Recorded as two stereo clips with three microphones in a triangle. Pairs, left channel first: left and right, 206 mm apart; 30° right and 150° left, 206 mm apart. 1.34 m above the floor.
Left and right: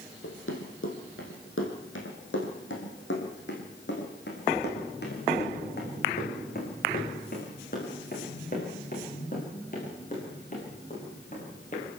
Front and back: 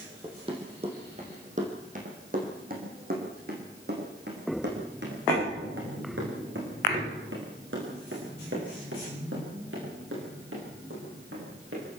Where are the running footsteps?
85° left, 4 m; by 11.9 s 145° left, 9.5 m.